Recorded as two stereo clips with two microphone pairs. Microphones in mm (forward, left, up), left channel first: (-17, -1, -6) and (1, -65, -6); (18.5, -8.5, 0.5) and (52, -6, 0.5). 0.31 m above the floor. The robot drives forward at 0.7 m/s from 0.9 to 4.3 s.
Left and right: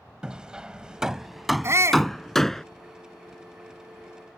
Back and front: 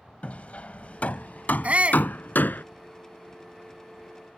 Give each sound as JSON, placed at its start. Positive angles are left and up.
{"t": 0.2, "sound": "hammering", "azimuth_deg": -145}
{"t": 1.6, "sound": "a shout", "azimuth_deg": -40}